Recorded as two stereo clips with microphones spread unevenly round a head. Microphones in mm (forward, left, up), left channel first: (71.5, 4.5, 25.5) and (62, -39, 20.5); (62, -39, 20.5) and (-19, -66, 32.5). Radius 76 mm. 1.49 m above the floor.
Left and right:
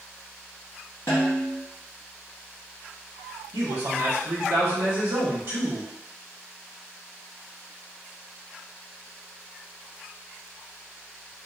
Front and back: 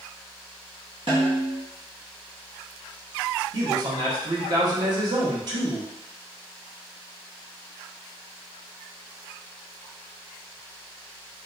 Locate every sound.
1.1 s a snare drum: 140° left, 0.6 m
3.5 s a man speaking: 120° right, 1.0 m